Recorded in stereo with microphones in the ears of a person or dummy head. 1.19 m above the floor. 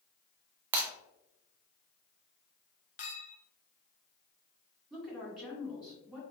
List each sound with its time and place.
0.7 s breaking glass: 10° right (ahead or behind), 0.6 m
3.0 s a clink: 40° left (ahead or behind), 0.8 m
4.9 s a woman speaking: centre (ahead or behind), 1.7 m